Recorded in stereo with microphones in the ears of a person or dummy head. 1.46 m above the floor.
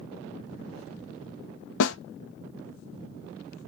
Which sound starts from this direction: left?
A snare drum, at 1.8 s.